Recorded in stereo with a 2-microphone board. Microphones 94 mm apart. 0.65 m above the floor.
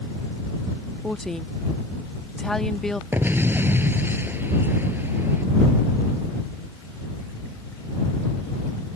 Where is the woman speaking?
5° left (ahead or behind).